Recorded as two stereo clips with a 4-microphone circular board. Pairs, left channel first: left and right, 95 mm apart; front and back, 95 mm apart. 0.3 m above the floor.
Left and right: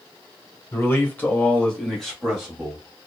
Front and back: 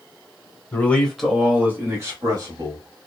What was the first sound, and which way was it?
A man speaking, 50° left.